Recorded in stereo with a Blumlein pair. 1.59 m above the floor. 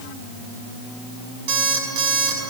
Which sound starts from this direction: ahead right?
An alarm clock, at 1.5 s.